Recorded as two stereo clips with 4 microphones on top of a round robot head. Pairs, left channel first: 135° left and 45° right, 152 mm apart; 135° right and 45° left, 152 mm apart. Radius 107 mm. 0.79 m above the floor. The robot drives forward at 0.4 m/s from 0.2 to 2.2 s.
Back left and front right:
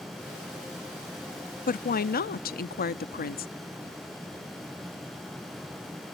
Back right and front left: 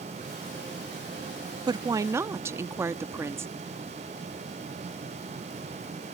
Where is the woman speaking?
110° left; by 3.5 s 120° left.